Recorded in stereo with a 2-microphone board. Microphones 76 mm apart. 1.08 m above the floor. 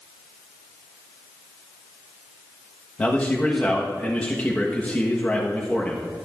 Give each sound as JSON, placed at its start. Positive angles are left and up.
{"t": 3.0, "sound": "a man speaking", "side_deg": 20, "distance_m": 1.1}